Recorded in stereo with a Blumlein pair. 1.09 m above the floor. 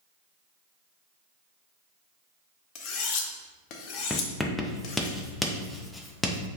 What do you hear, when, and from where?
2.8 s cutlery clinking: 40° left, 0.6 m
4.1 s writing: 10° left, 0.6 m